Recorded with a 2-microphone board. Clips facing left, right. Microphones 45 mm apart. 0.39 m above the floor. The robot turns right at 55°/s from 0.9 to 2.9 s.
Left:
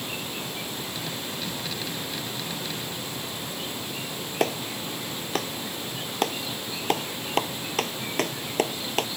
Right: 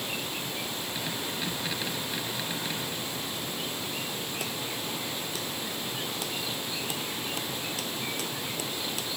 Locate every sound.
4.4 s a clap: 65° left (ahead or behind)